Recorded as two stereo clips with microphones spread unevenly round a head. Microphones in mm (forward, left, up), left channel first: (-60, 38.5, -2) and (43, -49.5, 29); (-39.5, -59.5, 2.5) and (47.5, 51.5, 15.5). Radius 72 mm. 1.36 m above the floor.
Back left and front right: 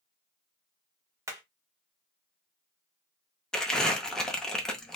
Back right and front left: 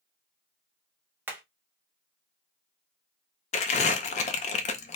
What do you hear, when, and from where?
1.3 s hammering: 10° right, 0.7 m
3.5 s crumpling: 120° right, 0.5 m